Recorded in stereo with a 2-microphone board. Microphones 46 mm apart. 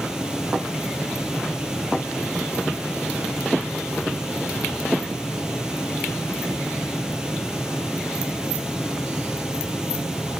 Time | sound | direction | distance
0.0 | running water | 15° right (ahead or behind) | 1.9 m